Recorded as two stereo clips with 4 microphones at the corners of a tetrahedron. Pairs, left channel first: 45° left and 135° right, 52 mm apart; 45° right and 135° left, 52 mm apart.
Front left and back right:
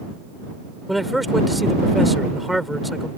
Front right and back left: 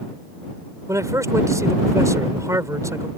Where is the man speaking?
135° left.